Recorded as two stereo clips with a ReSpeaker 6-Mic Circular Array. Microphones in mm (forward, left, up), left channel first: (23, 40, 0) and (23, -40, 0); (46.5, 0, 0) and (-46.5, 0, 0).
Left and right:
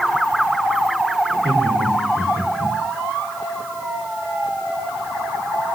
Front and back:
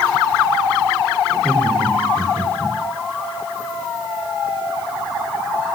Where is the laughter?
80° right, 4 m; by 2.8 s 110° right, 4.5 m.